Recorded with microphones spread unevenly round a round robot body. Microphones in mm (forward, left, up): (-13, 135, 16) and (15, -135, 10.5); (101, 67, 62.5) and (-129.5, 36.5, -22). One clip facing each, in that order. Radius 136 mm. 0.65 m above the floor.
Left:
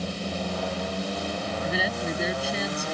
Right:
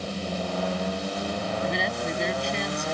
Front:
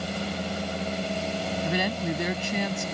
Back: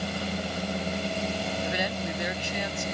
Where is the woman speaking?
10° left.